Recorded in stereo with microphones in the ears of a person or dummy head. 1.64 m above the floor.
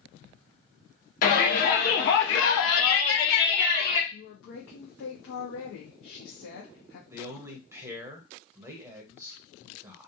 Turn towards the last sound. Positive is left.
turn(degrees=-20)  # may be behind; listen again after turning